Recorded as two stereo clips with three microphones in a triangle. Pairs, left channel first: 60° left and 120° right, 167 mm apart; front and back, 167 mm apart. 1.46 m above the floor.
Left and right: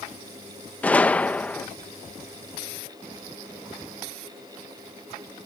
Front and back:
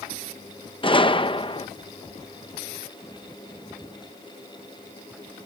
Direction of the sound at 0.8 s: 15° right.